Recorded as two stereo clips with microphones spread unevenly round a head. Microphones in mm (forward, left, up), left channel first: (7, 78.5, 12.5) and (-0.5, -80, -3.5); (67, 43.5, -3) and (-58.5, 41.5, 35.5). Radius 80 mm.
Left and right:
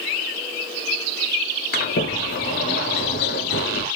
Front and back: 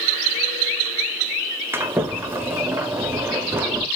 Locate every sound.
1.7 s a sliding door: 115° left, 1.1 m